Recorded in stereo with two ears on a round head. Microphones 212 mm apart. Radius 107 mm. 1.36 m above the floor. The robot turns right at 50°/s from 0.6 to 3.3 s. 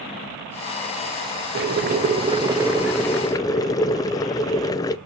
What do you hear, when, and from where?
1.6 s boiling: 65° right, 0.5 m; by 5.0 s 20° left, 0.5 m